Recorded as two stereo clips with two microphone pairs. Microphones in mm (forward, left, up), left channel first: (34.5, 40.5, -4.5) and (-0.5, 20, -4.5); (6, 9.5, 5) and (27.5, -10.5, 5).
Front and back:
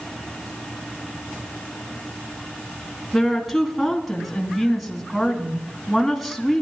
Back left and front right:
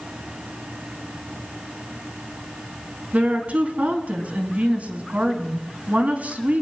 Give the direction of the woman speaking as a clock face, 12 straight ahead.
2 o'clock.